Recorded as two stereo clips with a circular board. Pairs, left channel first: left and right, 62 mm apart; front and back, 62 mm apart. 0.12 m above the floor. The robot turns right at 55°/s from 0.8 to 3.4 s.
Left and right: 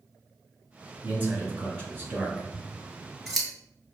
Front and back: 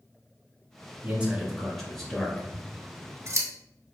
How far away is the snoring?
No snoring in this recording.